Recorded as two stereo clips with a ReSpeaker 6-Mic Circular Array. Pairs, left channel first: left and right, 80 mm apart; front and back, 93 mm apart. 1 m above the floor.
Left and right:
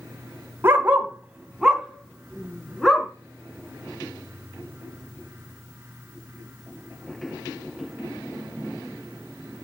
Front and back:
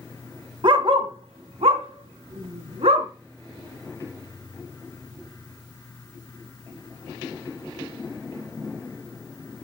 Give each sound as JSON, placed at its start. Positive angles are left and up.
{"t": 0.6, "sound": "a dog barking", "azimuth_deg": -150, "distance_m": 1.6}